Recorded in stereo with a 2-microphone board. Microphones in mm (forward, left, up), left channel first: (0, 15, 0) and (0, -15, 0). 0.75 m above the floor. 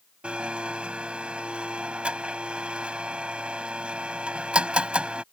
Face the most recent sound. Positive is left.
turn(degrees=-35)  # may be behind; listen again after turning